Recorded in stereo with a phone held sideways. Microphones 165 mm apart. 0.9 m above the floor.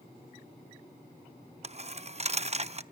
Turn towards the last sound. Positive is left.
turn(degrees=-40)  # may be behind; listen again after turning